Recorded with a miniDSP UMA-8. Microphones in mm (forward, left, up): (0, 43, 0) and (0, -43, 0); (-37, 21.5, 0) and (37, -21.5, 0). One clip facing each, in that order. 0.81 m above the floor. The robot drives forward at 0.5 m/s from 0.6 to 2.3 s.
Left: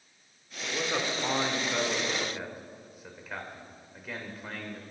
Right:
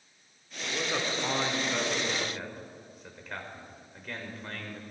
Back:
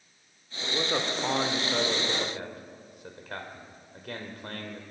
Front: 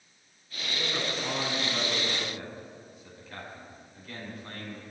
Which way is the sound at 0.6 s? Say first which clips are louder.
Left 1 dB, back 4 dB; 175° left.